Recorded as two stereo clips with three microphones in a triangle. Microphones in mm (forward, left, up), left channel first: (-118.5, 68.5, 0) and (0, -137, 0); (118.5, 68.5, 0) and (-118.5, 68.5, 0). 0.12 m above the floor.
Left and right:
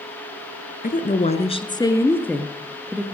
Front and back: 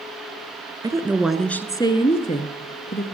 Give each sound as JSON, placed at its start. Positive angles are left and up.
{"t": 0.8, "sound": "a woman speaking", "azimuth_deg": 115, "distance_m": 1.3}